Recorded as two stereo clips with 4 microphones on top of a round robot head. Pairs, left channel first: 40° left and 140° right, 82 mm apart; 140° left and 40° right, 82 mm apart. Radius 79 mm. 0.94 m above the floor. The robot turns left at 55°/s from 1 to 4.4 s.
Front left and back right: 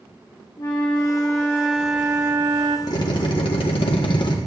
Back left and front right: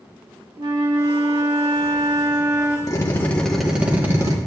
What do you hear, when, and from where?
0.6 s a flute: 5° right, 1.4 m; by 2.8 s 100° right, 1.4 m
2.9 s a drill: 85° left, 1.2 m; by 4.4 s 5° left, 1.2 m